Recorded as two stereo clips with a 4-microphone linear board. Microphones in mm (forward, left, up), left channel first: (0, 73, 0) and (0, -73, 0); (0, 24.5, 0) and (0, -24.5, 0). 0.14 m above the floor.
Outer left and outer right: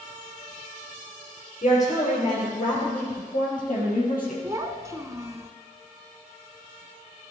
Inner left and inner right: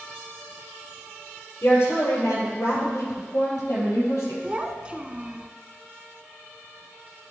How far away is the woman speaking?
About 3.5 m.